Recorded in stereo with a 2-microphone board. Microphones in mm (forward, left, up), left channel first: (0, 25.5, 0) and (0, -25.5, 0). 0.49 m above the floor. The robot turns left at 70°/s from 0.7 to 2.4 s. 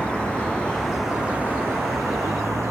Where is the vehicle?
20° left (ahead or behind); by 2.7 s 75° right (ahead or behind).